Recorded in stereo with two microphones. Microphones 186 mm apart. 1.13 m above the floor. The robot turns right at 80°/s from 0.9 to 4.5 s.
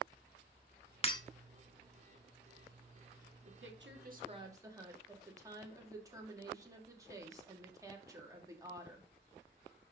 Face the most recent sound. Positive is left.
turn(degrees=-15)